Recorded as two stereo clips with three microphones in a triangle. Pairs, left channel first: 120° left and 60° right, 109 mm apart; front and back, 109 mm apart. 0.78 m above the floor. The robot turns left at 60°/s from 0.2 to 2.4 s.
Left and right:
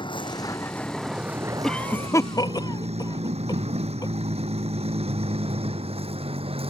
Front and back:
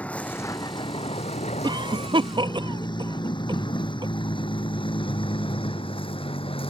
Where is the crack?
I don't hear a crack.